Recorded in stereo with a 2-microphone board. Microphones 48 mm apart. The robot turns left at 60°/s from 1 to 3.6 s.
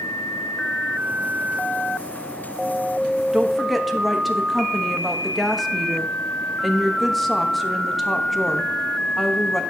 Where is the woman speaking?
15° right (ahead or behind), 0.9 m; by 9.6 s centre (ahead or behind), 0.9 m.